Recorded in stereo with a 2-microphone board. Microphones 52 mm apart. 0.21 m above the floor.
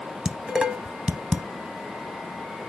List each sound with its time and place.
0.2 s dishes clattering: 15° right (ahead or behind), 0.7 m